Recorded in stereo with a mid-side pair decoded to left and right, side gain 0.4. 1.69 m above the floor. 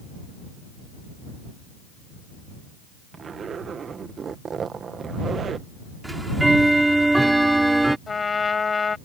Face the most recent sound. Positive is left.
turn(degrees=40)